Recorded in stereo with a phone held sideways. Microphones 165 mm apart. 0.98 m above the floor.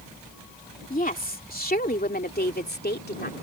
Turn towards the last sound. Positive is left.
turn(degrees=80)